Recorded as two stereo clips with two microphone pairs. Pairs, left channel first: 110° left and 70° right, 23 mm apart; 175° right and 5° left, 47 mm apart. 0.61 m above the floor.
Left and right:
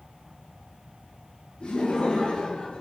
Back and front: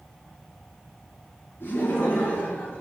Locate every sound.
1.6 s laughter: 150° left, 5 m; by 2.8 s 140° left, 5 m